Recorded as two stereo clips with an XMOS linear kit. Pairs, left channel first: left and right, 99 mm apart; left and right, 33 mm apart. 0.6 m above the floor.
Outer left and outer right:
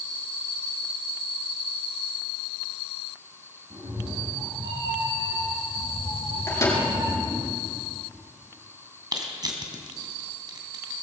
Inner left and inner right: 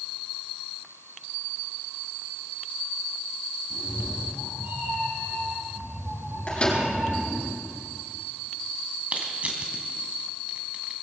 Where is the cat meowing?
65° right (ahead or behind), 7 m; by 7.5 s 80° right, 8.5 m.